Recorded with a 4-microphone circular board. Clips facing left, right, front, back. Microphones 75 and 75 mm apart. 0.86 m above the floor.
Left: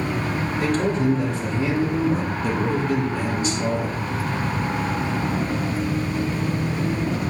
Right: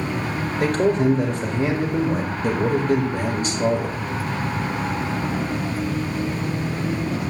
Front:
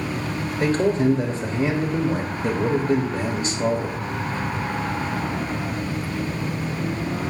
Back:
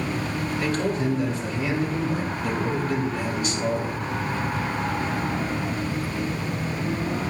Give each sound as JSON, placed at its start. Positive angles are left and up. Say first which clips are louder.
{"t": 0.6, "sound": "a man speaking", "louder": "right 3 dB, front 7 dB", "azimuth_deg": -45, "distance_m": 1.1}